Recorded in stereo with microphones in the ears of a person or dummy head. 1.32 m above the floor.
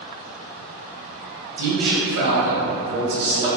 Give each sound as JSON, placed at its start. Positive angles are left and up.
{"t": 1.6, "sound": "a man speaking", "side_deg": -75, "distance_m": 1.2}